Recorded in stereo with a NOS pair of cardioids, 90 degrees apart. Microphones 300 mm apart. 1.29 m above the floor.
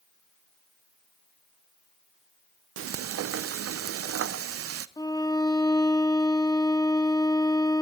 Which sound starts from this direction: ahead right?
Frying, at 2.8 s.